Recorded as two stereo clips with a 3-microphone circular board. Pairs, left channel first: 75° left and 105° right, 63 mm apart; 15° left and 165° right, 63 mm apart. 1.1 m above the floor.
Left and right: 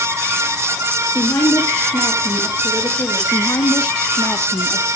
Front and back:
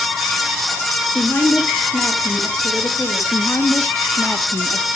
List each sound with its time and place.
1.1 s a woman speaking: 70° left, 2 m
3.3 s a woman speaking: 70° left, 0.9 m